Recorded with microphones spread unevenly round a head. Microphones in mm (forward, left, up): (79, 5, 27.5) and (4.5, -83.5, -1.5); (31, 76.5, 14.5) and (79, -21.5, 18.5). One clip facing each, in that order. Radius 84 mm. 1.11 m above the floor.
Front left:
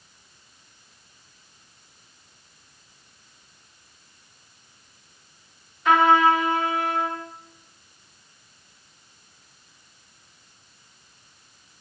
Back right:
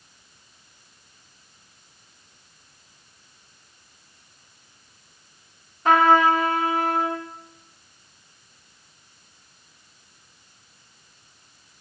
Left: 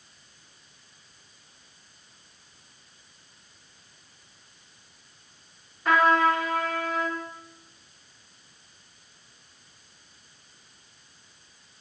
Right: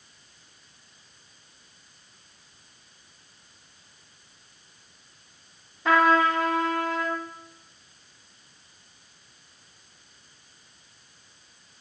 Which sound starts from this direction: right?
A trumpet, at 5.8 s.